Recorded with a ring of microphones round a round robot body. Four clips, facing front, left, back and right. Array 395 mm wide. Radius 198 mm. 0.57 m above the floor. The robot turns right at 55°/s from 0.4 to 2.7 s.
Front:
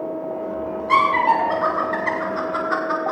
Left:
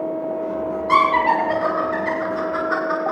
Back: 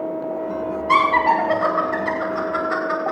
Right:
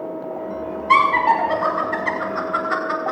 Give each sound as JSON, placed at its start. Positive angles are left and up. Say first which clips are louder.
{"t": 0.9, "sound": "laughter", "louder": "right 1 dB, even", "azimuth_deg": 140, "distance_m": 3.5}